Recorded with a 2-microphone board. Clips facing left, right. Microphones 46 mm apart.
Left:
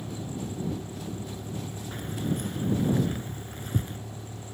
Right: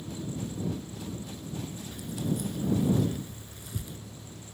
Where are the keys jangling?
45° left (ahead or behind).